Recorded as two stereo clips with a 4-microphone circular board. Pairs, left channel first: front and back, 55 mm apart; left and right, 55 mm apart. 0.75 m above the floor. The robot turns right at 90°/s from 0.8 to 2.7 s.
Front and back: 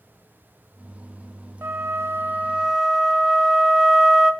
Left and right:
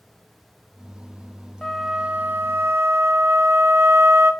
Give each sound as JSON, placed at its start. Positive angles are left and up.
{"t": 1.6, "sound": "a flute", "azimuth_deg": 165, "distance_m": 0.7}